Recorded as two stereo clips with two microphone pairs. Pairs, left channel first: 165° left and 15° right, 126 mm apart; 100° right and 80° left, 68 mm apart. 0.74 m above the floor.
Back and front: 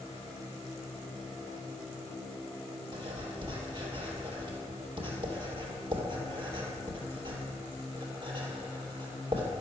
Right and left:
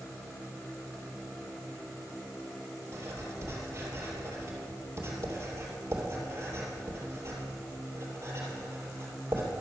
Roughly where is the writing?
Ahead left.